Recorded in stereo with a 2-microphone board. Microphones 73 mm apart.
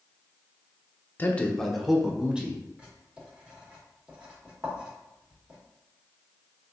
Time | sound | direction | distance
1.2 | a man speaking | 25° left (ahead or behind) | 0.7 m
2.8 | writing | 15° right (ahead or behind) | 1.8 m